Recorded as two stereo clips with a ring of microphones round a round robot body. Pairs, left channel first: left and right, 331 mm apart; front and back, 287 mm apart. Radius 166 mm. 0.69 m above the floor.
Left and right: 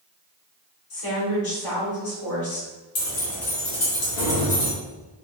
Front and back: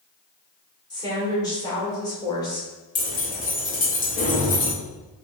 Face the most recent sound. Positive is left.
turn(degrees=60)